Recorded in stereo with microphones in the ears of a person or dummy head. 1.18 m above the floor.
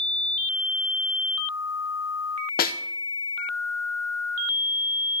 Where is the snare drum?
40° left (ahead or behind), 0.8 m.